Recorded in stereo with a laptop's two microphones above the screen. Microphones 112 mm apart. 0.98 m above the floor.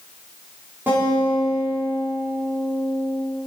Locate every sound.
0.9 s a guitar: 20° right (ahead or behind), 3 m